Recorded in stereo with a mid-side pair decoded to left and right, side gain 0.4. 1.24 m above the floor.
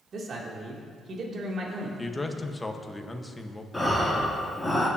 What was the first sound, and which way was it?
A man speaking, 55° right.